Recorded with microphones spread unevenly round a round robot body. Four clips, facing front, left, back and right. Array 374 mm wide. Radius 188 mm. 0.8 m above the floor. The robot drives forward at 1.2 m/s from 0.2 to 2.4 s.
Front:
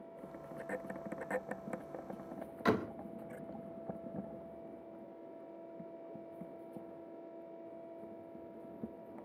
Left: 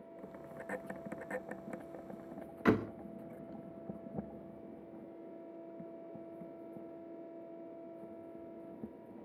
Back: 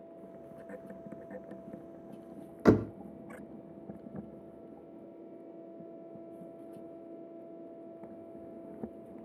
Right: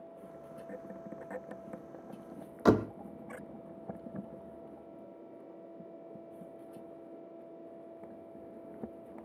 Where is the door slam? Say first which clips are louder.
Right 5 dB, back 8 dB; 165° right, 0.6 m.